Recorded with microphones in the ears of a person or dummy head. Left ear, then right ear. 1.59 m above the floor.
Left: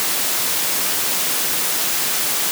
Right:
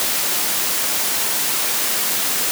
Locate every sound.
Only background noise.